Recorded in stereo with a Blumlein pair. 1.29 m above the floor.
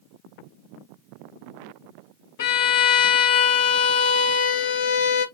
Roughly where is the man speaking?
I don't hear a man speaking.